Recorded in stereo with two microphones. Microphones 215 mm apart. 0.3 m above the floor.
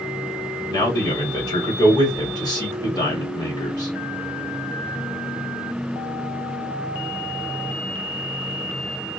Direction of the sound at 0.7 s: 20° left (ahead or behind).